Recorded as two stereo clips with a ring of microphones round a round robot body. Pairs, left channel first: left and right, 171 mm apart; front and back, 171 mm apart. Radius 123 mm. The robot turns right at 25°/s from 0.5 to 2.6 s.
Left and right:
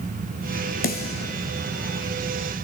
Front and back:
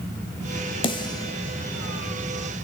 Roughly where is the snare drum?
Ahead left.